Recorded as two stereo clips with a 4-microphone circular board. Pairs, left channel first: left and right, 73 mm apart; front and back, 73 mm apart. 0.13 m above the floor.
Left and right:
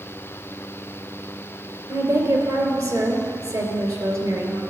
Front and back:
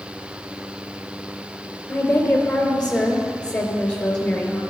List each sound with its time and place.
1.9 s a woman speaking: 75° right, 2.5 m